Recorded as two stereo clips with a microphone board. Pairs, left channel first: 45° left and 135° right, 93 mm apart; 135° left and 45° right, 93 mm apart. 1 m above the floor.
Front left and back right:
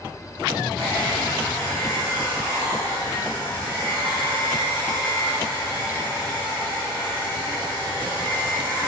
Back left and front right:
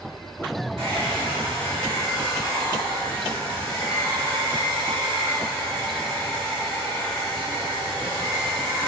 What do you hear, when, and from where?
0.8 s a hair dryer: 30° right, 1.3 m